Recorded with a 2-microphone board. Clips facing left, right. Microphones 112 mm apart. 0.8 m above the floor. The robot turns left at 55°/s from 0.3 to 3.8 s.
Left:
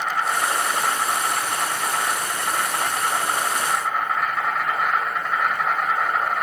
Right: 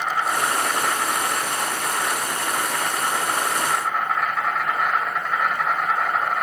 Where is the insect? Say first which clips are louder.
Even; 165° right, 2.5 m; by 6.4 s straight ahead, 2.5 m.